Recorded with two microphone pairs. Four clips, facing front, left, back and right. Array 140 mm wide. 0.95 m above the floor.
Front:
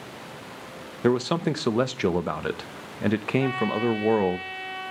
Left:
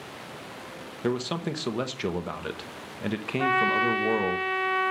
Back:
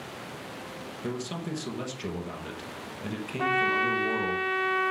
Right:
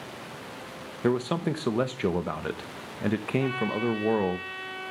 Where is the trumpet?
125° left, 1.5 m.